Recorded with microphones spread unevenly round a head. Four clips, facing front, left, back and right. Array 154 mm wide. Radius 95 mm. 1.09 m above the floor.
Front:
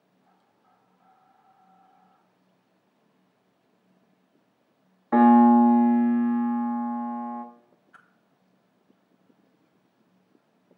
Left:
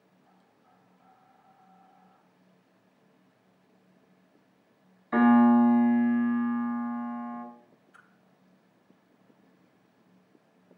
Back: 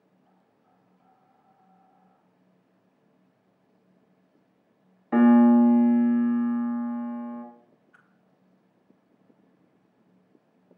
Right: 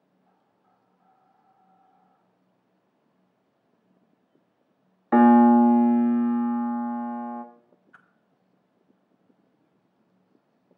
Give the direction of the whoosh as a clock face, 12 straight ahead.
1 o'clock.